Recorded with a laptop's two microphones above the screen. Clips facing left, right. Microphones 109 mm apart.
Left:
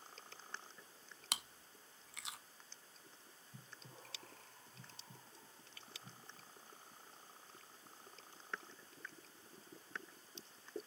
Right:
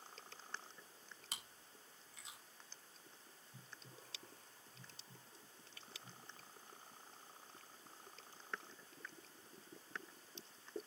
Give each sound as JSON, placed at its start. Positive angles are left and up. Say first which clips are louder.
{"t": 1.3, "sound": "chewing", "louder": "left 9 dB", "side_deg": 80, "distance_m": 0.6}
{"t": 3.5, "sound": "breathing", "louder": "left 2 dB", "side_deg": 70, "distance_m": 1.8}